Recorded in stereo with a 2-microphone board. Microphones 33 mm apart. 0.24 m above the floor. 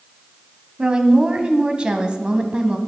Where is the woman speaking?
30° right (ahead or behind), 1.3 m.